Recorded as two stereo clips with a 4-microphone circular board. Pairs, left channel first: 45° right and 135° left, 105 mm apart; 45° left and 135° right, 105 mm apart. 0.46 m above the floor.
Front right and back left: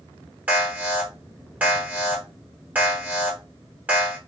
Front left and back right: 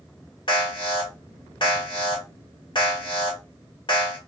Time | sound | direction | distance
0.5 | an alarm | 65° left | 1.4 m